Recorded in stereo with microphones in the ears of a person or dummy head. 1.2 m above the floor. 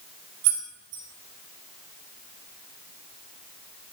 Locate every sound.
0.4 s keys jangling: 60° right (ahead or behind), 0.8 m